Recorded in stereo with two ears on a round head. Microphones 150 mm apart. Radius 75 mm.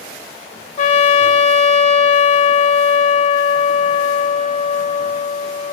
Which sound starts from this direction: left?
A trumpet, at 0.8 s.